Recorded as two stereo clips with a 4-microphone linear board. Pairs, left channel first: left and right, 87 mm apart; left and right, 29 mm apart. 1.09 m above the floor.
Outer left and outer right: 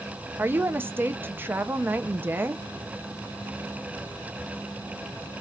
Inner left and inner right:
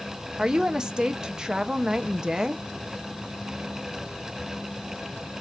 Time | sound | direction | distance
0.4 | a woman speaking | 25° right (ahead or behind) | 0.5 m